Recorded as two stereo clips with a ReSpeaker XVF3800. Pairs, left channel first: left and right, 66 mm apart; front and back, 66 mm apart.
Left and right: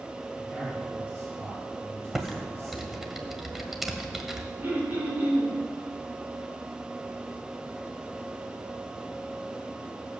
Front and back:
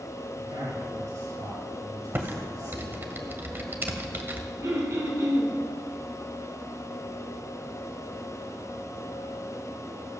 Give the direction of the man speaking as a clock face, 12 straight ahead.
6 o'clock.